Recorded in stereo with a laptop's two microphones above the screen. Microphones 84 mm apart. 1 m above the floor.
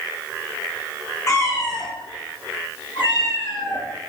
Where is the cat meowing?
35° left (ahead or behind), 1.8 m; by 3.8 s 75° left (ahead or behind), 3 m.